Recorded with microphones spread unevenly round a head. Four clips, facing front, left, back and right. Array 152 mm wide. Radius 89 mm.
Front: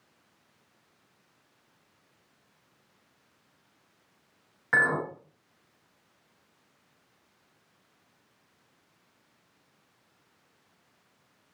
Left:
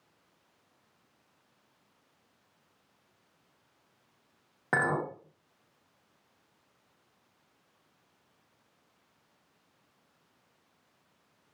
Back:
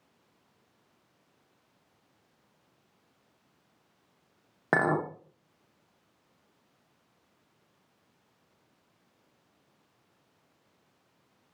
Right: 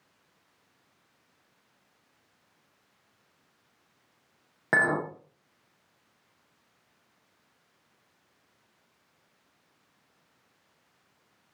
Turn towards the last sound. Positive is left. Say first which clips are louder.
# right 3 dB, even
turn(degrees=-170)